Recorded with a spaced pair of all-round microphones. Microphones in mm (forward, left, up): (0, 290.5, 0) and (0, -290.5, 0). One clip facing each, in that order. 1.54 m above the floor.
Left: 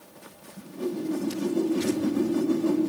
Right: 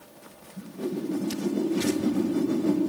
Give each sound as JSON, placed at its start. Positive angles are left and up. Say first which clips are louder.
{"t": 0.6, "sound": "a whoosh", "louder": "even", "side_deg": -50, "distance_m": 8.0}